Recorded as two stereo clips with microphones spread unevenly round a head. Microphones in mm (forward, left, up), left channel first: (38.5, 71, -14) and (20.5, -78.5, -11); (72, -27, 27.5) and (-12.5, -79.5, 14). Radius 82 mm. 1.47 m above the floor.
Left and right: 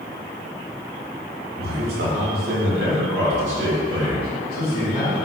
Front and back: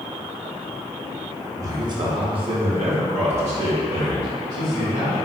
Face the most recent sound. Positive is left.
turn(degrees=-160)